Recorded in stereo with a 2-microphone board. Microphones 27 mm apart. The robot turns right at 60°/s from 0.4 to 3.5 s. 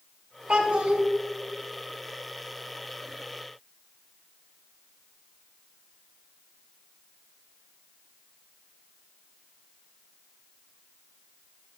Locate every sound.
0.5 s a child speaking: 105° right, 1.8 m; by 1.0 s 75° right, 1.8 m